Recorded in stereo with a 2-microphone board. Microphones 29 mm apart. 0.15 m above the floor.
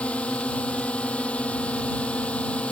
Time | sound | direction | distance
0.0 | a drone | 45° left (ahead or behind) | ?